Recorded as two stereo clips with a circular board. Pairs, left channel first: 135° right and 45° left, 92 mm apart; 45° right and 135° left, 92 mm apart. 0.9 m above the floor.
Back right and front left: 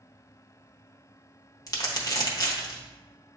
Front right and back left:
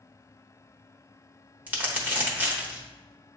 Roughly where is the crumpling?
Behind.